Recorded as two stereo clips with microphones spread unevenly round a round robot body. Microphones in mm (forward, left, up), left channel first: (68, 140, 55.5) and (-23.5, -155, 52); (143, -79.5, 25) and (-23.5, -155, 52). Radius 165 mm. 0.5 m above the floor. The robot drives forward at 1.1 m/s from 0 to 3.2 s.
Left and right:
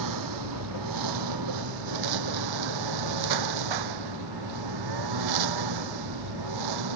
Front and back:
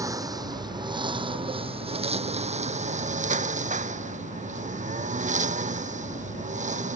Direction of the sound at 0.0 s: 85° right.